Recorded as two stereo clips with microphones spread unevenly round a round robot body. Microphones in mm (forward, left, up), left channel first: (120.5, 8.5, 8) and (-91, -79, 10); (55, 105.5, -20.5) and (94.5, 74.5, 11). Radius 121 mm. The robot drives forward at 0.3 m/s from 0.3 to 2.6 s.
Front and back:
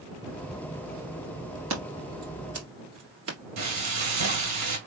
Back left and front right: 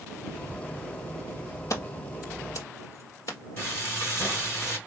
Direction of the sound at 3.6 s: 160° right.